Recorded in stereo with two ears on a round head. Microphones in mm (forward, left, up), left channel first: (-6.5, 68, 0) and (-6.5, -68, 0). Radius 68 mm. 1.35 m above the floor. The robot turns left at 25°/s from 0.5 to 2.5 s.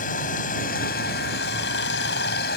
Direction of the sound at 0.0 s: 120° left.